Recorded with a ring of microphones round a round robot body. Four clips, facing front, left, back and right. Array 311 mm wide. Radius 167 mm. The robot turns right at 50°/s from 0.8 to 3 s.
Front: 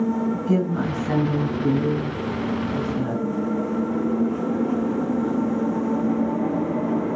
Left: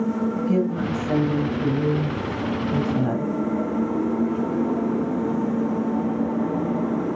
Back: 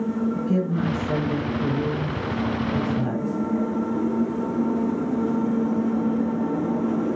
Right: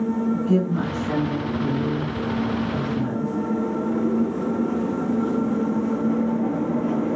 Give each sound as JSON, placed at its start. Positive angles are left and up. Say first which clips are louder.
{"t": 0.3, "sound": "a woman speaking", "louder": "right 1 dB, front 1 dB", "azimuth_deg": -20, "distance_m": 4.0}